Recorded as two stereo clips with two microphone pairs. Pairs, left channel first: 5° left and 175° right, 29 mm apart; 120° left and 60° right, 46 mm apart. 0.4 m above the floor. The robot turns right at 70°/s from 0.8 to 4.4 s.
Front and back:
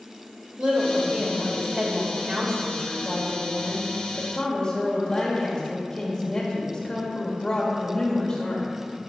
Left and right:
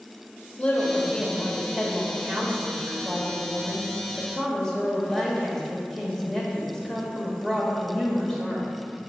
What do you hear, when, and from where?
0.6 s a woman speaking: 160° left, 1.3 m; by 8.7 s 55° left, 1.3 m